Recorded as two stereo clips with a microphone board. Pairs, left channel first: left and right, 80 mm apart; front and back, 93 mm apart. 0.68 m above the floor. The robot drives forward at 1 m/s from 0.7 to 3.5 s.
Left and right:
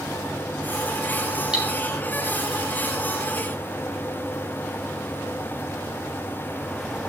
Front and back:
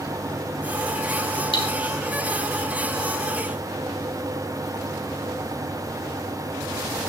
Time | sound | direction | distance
1.5 | cutlery clinking | 10° right | 2.5 m